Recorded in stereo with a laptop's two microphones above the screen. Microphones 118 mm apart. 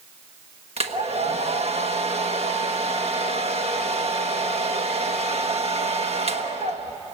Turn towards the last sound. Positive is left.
turn(degrees=-60)  # may be behind; listen again after turning